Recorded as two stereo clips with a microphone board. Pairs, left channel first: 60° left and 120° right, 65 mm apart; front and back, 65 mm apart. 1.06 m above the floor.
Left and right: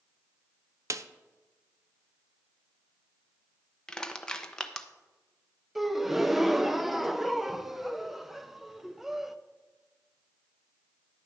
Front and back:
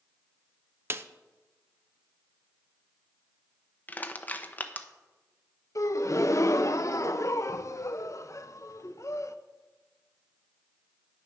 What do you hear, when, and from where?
0.9 s a snare drum: 135° right, 0.6 m
3.9 s crushing: 5° right, 0.8 m
5.8 s a gasp: 35° right, 0.6 m